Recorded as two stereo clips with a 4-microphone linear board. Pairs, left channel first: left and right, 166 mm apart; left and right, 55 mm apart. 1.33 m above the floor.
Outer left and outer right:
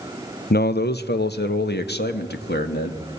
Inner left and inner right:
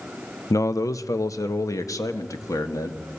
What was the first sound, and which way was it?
A man speaking, 75° left (ahead or behind).